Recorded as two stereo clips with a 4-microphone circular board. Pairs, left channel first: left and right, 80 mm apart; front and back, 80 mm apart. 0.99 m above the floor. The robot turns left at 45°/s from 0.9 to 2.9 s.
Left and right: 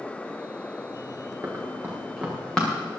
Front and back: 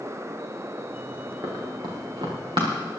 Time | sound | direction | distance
1.4 | running footsteps | 135° right | 5 m